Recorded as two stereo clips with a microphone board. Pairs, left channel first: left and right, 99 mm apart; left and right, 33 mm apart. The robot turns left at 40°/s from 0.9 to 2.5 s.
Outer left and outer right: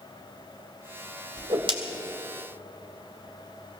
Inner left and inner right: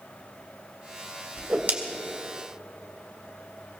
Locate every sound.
1.4 s a whoosh: 55° right (ahead or behind), 1.9 m; by 1.7 s 60° right (ahead or behind), 1.9 m